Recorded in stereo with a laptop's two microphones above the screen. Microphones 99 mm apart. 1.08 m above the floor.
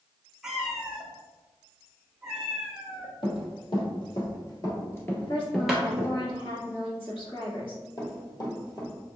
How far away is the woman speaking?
About 1.7 m.